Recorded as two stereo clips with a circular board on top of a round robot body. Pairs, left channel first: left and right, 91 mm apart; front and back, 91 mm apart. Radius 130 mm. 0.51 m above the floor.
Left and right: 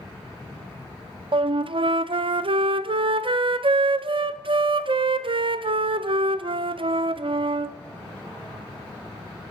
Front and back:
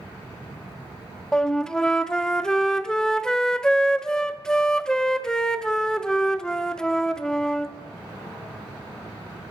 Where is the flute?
85° right, 0.5 m.